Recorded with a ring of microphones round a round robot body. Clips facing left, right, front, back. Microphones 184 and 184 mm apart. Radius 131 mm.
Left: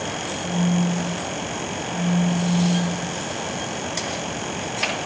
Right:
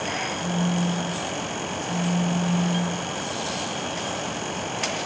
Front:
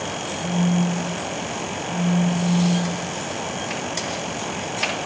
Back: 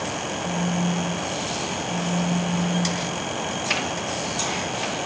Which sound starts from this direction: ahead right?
A phone buzzing, at 0.4 s.